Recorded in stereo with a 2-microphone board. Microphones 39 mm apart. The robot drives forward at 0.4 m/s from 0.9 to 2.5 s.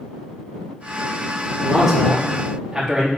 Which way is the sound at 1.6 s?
15° right (ahead or behind).